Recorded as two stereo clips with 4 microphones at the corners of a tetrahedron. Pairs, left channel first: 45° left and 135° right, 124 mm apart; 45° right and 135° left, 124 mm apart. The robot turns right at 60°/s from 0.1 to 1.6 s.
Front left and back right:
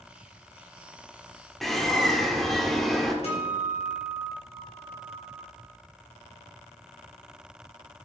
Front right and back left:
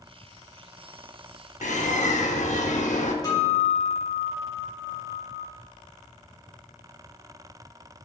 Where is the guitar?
15° left, 2.5 m.